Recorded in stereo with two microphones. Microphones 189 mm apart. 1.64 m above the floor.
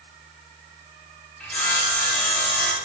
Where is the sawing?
5° left (ahead or behind), 0.7 m.